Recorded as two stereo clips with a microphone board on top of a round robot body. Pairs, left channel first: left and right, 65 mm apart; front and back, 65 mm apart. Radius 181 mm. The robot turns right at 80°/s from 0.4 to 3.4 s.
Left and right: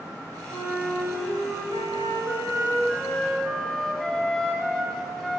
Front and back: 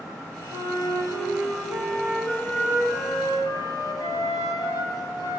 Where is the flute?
135° left, 4.5 m; by 5.4 s 5° left, 4.5 m.